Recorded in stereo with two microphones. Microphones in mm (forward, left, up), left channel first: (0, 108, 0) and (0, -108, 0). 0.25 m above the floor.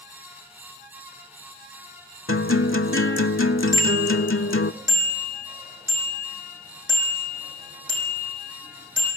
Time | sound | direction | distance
2.3 | a guitar | 75° left (ahead or behind) | 0.7 m
3.7 | a bicycle bell | 55° right (ahead or behind) | 8 m